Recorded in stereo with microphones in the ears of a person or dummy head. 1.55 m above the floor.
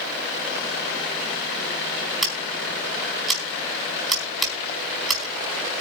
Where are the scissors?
Centre (ahead or behind), 4 m.